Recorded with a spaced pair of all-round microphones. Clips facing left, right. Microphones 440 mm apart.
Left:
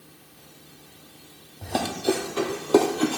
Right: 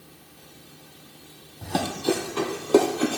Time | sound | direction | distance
1.6 | running footsteps | 20° right (ahead or behind) | 3 m